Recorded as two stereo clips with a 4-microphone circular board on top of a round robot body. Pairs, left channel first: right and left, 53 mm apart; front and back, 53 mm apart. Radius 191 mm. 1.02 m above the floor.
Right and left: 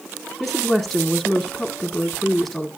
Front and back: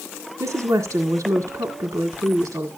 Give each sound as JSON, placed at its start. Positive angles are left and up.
{"t": 0.4, "sound": "a woman speaking", "azimuth_deg": 180, "distance_m": 1.8}